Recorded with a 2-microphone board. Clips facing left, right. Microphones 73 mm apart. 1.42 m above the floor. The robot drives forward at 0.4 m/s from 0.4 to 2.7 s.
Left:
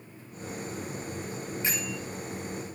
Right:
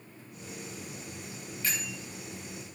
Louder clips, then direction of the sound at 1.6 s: Left 1 dB; 20° left (ahead or behind).